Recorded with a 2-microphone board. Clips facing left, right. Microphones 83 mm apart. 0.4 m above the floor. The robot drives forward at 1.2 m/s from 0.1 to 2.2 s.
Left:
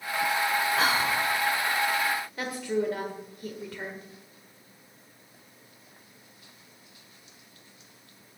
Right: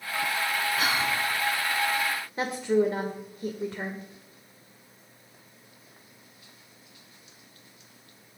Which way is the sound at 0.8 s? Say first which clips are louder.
Left 1 dB; 35° left (ahead or behind).